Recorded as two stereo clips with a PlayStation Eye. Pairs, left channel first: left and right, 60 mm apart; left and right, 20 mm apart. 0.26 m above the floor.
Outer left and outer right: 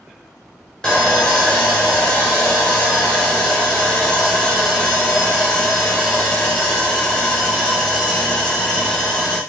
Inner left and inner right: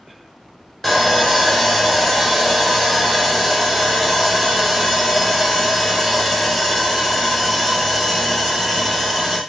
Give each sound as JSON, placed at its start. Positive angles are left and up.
{"t": 0.8, "sound": "sawing", "side_deg": 10, "distance_m": 1.1}